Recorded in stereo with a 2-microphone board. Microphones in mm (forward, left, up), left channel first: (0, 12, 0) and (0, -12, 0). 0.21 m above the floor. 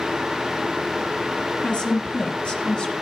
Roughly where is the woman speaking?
Left.